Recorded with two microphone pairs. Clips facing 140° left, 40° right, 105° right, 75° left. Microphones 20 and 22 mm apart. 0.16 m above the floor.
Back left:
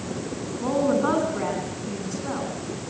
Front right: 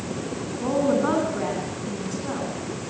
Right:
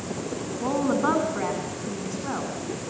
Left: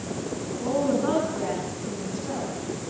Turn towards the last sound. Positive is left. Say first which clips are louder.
# even, right 1 dB
turn(degrees=-130)